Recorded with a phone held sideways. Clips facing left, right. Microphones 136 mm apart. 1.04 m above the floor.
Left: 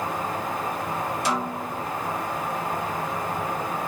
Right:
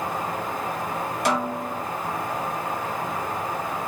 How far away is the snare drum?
About 3 m.